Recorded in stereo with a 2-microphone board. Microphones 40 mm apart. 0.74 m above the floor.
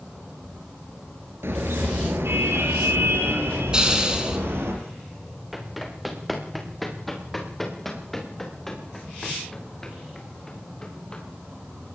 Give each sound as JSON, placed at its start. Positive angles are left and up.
{"t": 1.4, "sound": "a car horn", "side_deg": -80, "distance_m": 7.0}
{"t": 3.7, "sound": "a hiss", "side_deg": -20, "distance_m": 5.5}
{"t": 5.5, "sound": "running footsteps", "side_deg": 0, "distance_m": 6.0}